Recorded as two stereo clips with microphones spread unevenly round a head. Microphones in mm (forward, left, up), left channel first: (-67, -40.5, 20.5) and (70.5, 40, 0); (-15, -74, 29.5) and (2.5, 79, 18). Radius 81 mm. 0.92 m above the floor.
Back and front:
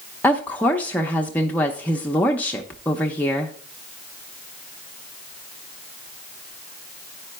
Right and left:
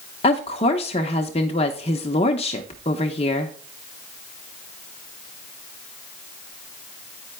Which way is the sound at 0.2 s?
65° right.